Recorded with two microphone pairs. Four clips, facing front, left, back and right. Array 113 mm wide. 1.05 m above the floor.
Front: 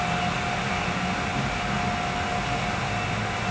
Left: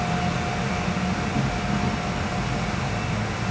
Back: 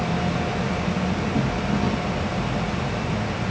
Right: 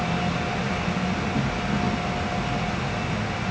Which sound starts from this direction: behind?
An insect, at 0.0 s.